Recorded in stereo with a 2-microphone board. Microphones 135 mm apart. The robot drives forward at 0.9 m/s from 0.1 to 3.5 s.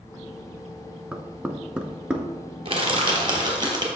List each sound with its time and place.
1.1 s knocking: 10° right (ahead or behind), 0.8 m; by 2.2 s 5° right (ahead or behind), 1.1 m
2.6 s crushing: 45° right (ahead or behind), 1.7 m; by 3.9 s 30° right (ahead or behind), 2 m